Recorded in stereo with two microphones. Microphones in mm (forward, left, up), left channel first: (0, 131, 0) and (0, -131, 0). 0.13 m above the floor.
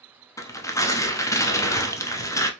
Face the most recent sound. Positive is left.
turn(degrees=10)  # may be behind; listen again after turning